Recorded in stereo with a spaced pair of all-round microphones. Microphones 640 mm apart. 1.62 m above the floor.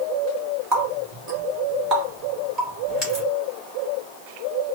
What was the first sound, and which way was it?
A running tap, 25° right (ahead or behind).